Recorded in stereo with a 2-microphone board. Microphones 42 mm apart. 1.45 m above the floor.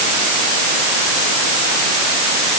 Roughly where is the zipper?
No zipper in this recording.